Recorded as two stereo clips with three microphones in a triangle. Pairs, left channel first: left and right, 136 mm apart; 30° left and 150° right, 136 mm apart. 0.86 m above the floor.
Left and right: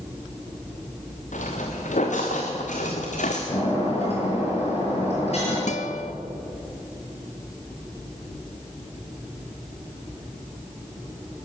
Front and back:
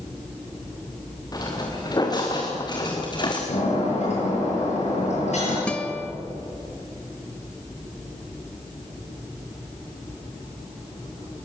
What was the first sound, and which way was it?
Footsteps, 90° left.